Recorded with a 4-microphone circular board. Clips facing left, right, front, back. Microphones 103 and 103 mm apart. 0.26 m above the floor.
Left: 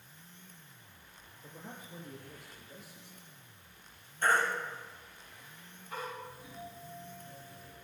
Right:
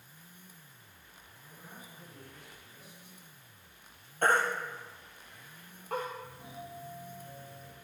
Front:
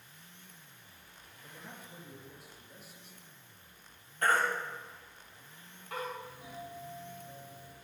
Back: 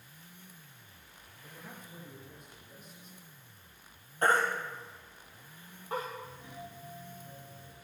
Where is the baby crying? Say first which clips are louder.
Right 2 dB, back 2 dB; 120° right, 3.5 m.